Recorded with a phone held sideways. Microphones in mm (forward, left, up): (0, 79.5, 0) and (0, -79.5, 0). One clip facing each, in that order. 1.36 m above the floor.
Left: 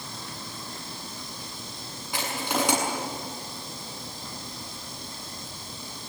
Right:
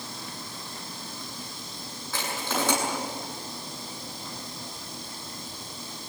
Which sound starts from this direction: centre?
Crushing, at 2.1 s.